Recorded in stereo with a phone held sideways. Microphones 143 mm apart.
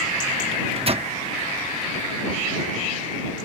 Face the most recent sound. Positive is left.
turn(degrees=-45)  # may be behind; listen again after turning